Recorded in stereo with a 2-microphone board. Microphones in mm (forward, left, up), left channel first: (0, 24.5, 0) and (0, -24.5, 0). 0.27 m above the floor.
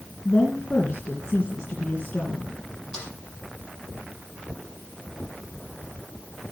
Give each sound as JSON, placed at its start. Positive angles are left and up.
{"t": 0.2, "sound": "a woman speaking", "side_deg": 25, "distance_m": 2.5}
{"t": 2.9, "sound": "a snare drum", "side_deg": 15, "distance_m": 7.0}